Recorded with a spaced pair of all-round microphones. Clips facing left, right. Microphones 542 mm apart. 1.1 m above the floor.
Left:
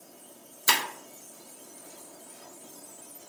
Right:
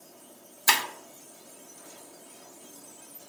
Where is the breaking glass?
20° right (ahead or behind), 0.5 m.